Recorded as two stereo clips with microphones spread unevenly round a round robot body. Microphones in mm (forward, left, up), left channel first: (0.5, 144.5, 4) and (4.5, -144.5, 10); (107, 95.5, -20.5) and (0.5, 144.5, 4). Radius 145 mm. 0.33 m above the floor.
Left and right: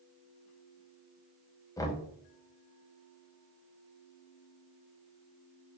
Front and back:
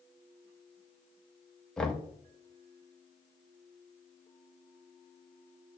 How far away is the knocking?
About 0.6 m.